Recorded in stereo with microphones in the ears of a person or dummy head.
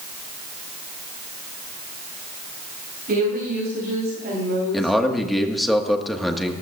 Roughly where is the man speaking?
Centre.